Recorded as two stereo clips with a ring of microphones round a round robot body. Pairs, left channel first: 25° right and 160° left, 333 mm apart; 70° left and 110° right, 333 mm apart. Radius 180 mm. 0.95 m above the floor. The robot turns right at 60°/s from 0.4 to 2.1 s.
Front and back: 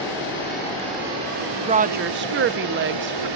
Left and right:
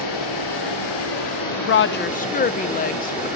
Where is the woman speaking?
90° left, 0.5 m; by 3.3 s 120° left, 0.5 m.